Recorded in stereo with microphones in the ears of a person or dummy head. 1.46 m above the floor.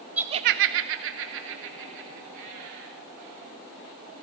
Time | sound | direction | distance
0.2 | laughter | 5° right (ahead or behind) | 0.5 m